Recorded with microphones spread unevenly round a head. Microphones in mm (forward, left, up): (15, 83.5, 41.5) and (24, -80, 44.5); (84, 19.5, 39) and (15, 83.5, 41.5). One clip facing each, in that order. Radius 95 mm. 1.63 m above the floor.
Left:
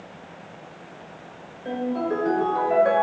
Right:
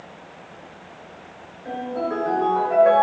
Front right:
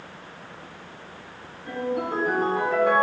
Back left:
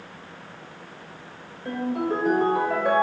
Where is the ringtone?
150° left, 4 m.